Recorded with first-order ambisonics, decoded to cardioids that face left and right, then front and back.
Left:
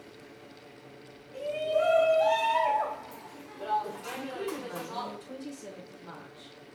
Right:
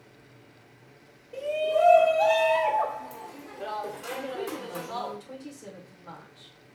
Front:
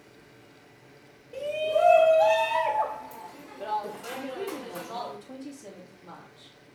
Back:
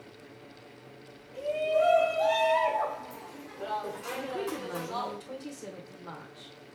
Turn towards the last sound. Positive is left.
turn(degrees=-165)